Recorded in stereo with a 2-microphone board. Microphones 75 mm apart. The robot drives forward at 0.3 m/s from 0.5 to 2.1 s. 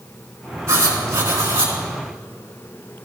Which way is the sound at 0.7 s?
40° right (ahead or behind).